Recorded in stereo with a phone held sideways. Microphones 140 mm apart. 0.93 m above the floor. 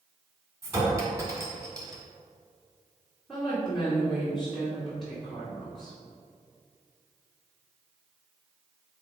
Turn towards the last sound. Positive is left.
turn(degrees=0)  # may be behind; listen again after turning